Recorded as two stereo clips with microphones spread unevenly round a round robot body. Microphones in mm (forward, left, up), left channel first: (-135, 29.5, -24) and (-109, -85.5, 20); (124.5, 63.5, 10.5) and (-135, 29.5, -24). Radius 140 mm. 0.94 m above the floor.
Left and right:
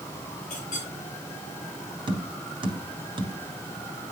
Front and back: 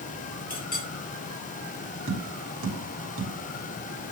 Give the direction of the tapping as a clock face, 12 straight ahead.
4 o'clock.